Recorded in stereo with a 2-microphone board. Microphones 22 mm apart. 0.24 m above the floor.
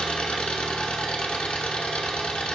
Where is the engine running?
70° left (ahead or behind), 0.8 m.